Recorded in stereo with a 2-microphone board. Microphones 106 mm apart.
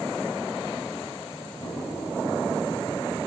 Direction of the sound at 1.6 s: 5° right (ahead or behind).